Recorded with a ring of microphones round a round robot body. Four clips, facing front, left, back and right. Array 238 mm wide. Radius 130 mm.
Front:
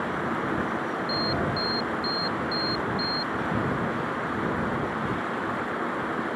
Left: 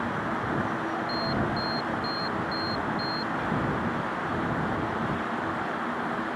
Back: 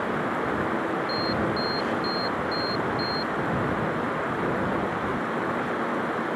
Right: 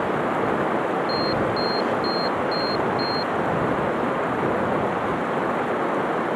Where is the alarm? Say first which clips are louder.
Right 6 dB, back 1 dB; 85° right.